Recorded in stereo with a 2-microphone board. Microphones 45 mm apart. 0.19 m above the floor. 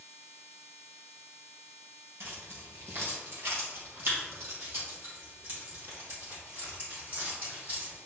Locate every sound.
2.2 s keys jangling: 70° right (ahead or behind), 2.5 m; by 8.0 s 50° right (ahead or behind), 5.5 m